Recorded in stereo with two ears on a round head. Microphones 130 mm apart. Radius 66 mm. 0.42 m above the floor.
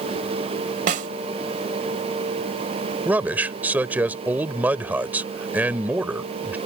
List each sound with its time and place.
0.9 s a snare drum: 55° right (ahead or behind)
3.0 s a man speaking: 10° right (ahead or behind)